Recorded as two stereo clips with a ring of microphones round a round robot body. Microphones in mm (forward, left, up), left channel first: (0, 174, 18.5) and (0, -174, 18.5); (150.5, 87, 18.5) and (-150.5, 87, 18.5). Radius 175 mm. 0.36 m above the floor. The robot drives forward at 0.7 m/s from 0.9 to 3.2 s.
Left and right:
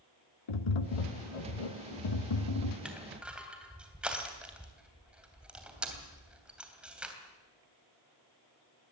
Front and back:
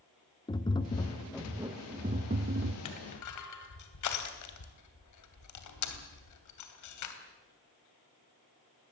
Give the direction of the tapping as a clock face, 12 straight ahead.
9 o'clock.